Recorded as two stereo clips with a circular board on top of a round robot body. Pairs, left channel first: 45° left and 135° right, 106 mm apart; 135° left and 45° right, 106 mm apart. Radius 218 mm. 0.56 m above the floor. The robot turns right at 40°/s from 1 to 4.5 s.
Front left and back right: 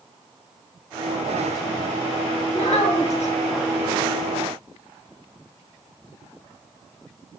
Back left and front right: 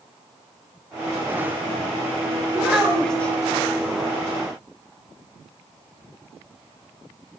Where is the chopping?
No chopping in this recording.